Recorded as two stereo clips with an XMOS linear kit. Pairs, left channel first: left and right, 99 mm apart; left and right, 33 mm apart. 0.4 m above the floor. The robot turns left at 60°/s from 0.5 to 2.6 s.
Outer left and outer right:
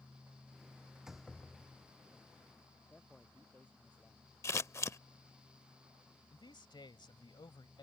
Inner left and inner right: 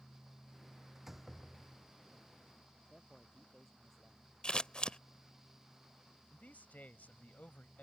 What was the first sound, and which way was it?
A door slam, 165° right.